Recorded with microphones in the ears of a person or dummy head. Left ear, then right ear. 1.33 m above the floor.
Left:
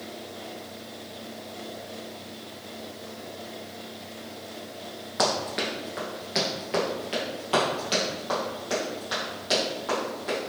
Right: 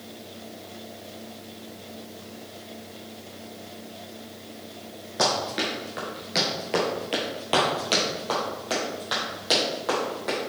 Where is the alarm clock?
No alarm clock in this recording.